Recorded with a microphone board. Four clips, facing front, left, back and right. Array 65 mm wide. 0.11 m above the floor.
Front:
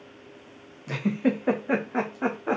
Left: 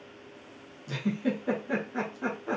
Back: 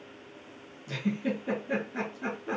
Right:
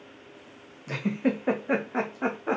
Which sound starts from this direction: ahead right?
A giggle, at 0.9 s.